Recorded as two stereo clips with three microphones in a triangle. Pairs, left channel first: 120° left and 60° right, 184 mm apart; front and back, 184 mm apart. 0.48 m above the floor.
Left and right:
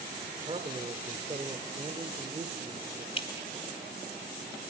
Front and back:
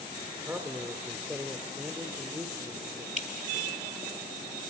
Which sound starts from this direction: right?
A man speaking, at 0.4 s.